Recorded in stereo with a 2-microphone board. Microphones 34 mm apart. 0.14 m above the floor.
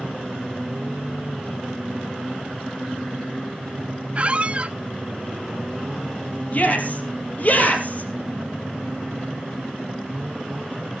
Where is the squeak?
30° right (ahead or behind), 0.5 m.